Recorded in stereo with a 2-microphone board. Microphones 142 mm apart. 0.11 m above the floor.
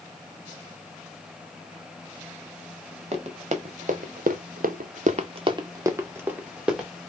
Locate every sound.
3.1 s running footsteps: 45° right (ahead or behind), 1.1 m; by 6.9 s 5° right (ahead or behind), 1.3 m